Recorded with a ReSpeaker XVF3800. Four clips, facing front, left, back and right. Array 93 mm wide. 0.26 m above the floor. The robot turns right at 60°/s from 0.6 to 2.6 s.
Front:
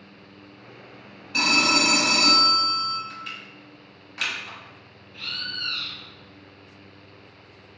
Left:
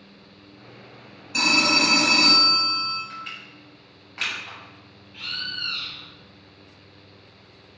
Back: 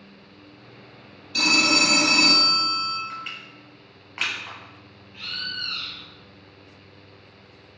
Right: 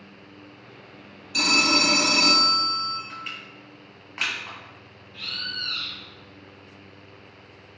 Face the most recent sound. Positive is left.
turn(degrees=95)